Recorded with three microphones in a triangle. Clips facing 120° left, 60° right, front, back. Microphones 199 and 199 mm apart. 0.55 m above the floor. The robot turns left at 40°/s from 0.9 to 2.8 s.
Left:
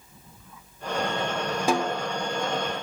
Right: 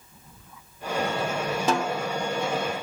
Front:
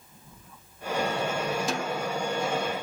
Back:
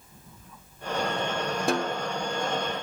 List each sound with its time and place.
1.7 s a snare drum: 160° right, 0.6 m; by 2.0 s 175° right, 0.6 m